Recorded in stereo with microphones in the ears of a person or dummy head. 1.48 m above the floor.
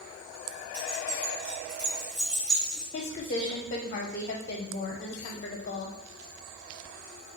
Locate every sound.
0.7 s keys jangling: 10° right (ahead or behind), 1.5 m; by 2.8 s 15° right (ahead or behind), 3 m
2.9 s a woman speaking: 40° left (ahead or behind), 0.6 m